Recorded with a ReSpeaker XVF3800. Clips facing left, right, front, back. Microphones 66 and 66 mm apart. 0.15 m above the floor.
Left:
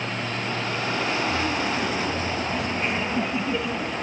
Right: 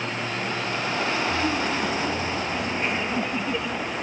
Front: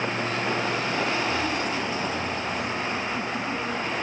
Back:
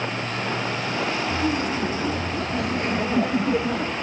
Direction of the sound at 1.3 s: 145° right.